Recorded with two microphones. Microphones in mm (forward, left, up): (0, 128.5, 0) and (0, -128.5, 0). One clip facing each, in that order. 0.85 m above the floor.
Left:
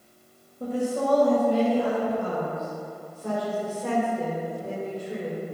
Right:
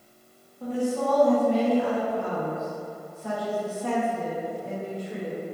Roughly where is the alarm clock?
No alarm clock in this recording.